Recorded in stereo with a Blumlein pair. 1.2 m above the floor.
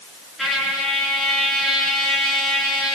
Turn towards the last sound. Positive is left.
turn(degrees=5)